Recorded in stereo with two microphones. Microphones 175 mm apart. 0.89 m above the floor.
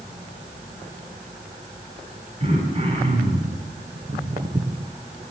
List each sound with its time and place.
2.4 s throat clearing: 40° right (ahead or behind), 5.5 m
3.9 s footsteps: 40° right (ahead or behind), 2.5 m; by 4.9 s 25° right (ahead or behind), 1.6 m